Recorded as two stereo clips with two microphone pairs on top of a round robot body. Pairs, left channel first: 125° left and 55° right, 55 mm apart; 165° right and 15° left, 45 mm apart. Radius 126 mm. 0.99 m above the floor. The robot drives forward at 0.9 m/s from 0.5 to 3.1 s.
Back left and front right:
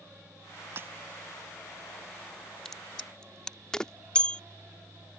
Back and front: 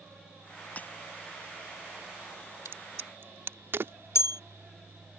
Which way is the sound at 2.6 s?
40° left.